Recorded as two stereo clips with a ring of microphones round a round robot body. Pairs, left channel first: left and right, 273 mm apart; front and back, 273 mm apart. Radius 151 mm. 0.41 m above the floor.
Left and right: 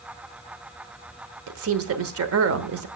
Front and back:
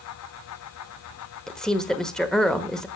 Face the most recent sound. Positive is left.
turn(degrees=-85)